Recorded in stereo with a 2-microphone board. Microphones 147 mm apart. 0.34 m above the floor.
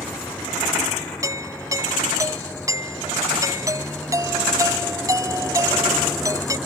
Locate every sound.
0.0 s a vehicle: 5° left (ahead or behind); by 6.7 s centre (ahead or behind)
1.2 s a doorbell: 25° right (ahead or behind)